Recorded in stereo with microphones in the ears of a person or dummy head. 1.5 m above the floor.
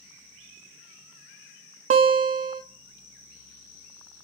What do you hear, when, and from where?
1.9 s a guitar: 50° right (ahead or behind), 0.7 m